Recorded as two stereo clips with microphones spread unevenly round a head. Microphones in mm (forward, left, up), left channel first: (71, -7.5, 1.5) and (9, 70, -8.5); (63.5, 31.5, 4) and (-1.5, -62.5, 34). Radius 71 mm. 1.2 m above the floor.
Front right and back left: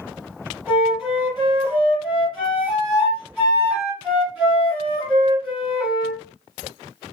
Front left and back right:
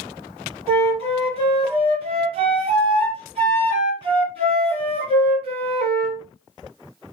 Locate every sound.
0.7 s a flute: 140° right, 1.6 m